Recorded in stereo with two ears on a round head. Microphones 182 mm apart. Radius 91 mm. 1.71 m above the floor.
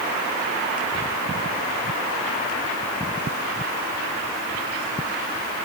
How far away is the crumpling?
I don't hear crumpling.